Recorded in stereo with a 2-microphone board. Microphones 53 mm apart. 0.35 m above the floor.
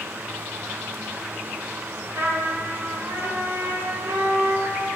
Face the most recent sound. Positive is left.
turn(degrees=-60)  # may be behind; listen again after turning